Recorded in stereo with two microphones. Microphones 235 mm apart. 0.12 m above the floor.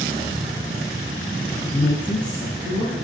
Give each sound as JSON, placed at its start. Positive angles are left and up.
{"t": 1.6, "sound": "a woman speaking", "side_deg": -5, "distance_m": 1.1}